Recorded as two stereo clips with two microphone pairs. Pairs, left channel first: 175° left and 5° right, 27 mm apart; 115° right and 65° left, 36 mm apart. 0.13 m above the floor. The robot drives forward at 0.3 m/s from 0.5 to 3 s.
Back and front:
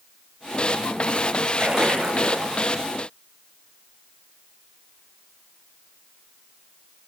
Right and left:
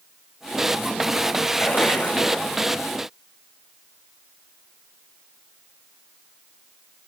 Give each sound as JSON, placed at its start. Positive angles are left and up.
{"t": 1.6, "sound": "a splash", "azimuth_deg": -65, "distance_m": 7.0}